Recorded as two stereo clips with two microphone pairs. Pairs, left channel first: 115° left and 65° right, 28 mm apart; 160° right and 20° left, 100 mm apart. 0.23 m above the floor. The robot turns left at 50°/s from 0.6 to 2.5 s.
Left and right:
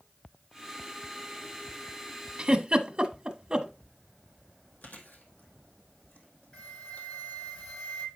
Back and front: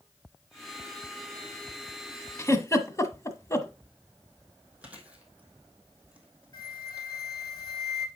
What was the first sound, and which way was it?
A giggle, 110° right.